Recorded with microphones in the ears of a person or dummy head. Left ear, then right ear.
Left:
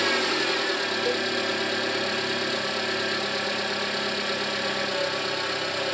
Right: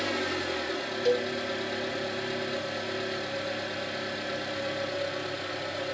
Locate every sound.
0.0 s an engine running: 70° left (ahead or behind), 0.9 m
1.1 s a cowbell: 15° right (ahead or behind), 0.7 m